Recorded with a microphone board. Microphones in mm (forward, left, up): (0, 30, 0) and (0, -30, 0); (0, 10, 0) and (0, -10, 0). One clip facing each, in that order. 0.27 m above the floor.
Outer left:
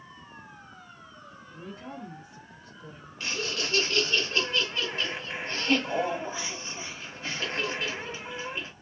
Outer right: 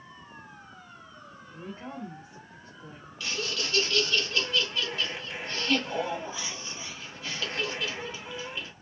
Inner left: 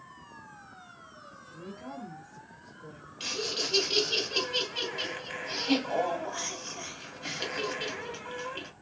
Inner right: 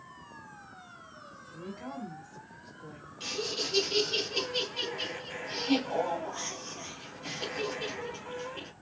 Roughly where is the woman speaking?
Right.